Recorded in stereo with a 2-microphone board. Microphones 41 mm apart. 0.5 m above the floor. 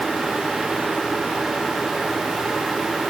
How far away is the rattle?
I don't hear a rattle.